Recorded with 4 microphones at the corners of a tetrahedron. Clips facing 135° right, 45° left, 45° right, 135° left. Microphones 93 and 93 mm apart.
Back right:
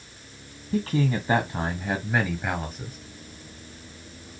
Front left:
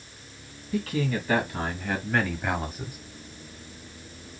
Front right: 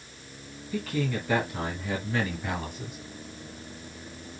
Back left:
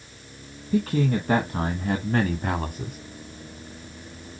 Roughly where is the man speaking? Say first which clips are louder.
Back right 3 dB, back left 7 dB; behind.